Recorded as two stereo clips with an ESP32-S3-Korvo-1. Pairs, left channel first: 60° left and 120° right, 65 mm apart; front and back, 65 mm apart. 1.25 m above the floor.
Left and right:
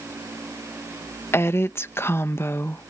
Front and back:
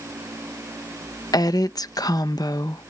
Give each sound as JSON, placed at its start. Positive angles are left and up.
{"t": 1.3, "sound": "a woman speaking", "azimuth_deg": 10}